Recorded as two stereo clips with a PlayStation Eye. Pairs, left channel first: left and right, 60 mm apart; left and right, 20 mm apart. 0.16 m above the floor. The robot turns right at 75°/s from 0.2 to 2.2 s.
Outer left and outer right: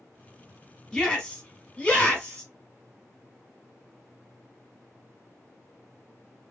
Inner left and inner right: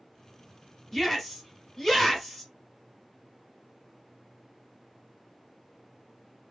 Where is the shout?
10° left (ahead or behind), 1.3 m; by 2.5 s 15° left (ahead or behind), 1.3 m.